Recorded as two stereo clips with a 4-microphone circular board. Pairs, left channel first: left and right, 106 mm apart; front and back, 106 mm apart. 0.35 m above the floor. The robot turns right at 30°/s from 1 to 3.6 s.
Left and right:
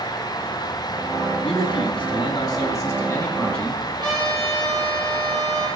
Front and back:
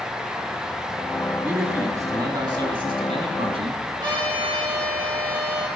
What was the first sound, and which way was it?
A man speaking, 105° left.